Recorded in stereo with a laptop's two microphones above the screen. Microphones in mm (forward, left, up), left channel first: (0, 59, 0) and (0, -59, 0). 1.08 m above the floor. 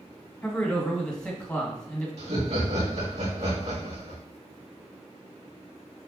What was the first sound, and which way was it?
A man speaking, 10° left (ahead or behind).